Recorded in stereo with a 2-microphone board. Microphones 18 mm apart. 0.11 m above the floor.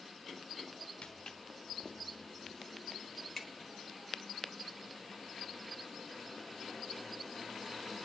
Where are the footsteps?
60° left (ahead or behind), 1.2 m; by 3.7 s 5° left (ahead or behind), 2.5 m.